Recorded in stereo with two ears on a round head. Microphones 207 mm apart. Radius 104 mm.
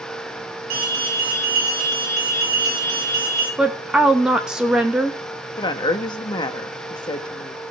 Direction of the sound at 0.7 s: 85° right.